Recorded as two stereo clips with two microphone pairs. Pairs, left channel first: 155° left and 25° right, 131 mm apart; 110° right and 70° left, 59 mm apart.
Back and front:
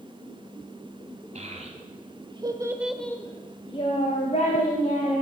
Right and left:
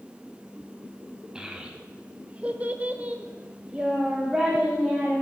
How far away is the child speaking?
About 1.8 m.